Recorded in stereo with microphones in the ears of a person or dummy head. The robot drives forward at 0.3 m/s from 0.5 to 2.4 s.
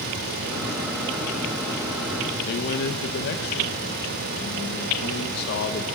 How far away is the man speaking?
About 1.2 m.